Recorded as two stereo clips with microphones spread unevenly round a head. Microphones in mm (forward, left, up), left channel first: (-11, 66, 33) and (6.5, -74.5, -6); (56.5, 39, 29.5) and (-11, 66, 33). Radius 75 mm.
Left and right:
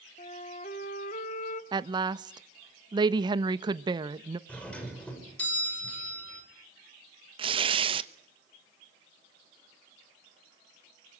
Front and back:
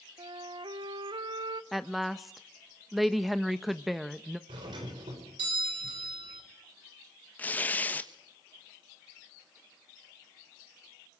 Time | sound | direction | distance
0.2 | a flute | 140° left | 1.2 m
1.7 | a woman speaking | 115° right | 1.0 m
4.5 | a doorbell | straight behind | 5.5 m
7.4 | tearing paper | 85° right | 1.1 m